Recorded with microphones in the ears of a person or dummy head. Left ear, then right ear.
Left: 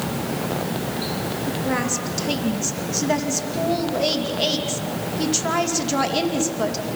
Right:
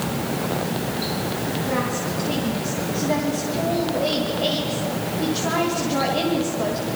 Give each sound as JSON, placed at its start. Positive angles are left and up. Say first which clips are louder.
{"t": 1.5, "sound": "a woman speaking", "louder": "left 1 dB", "side_deg": 75, "distance_m": 2.5}